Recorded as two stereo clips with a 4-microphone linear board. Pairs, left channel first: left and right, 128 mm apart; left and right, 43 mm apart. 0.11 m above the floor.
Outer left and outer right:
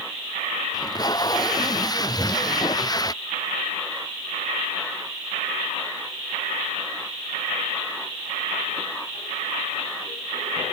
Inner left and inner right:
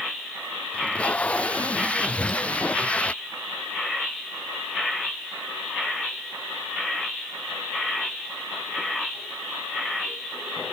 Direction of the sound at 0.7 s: 30° left (ahead or behind).